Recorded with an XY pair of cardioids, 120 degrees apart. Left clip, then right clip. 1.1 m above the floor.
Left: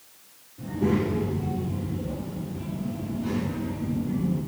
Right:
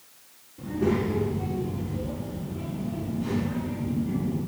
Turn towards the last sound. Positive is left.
turn(degrees=-40)